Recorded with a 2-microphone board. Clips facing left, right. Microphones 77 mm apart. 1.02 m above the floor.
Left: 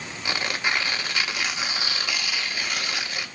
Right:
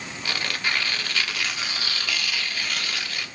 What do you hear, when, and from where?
0.2 s tearing paper: 20° left (ahead or behind), 0.7 m